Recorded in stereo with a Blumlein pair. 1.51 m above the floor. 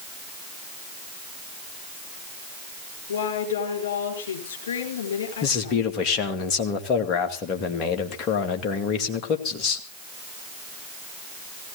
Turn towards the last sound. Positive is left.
turn(degrees=35)